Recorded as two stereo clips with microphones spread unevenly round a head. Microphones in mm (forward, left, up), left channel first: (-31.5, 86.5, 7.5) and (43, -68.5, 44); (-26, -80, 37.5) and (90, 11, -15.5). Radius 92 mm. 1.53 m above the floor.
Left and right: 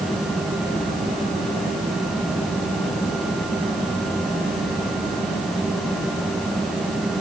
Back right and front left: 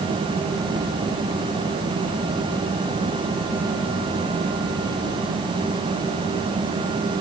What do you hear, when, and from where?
Only background noise.